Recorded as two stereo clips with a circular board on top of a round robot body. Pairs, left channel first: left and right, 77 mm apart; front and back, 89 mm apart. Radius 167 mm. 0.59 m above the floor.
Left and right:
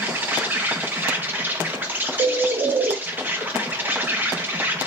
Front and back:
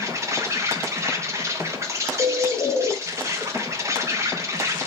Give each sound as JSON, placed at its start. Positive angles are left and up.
{"t": 0.0, "sound": "an insect", "azimuth_deg": -145, "distance_m": 1.1}
{"t": 2.2, "sound": "a bird", "azimuth_deg": -55, "distance_m": 0.5}